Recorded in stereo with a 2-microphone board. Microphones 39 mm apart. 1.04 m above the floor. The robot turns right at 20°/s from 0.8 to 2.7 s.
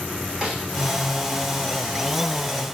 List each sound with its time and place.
0.4 s a snare drum: 15° right (ahead or behind), 7.5 m